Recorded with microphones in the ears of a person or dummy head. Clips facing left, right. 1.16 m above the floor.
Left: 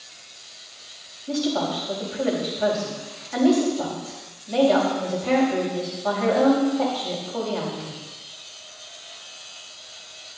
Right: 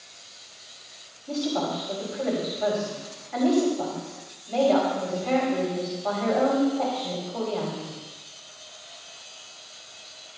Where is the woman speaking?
15° left (ahead or behind), 5.5 m.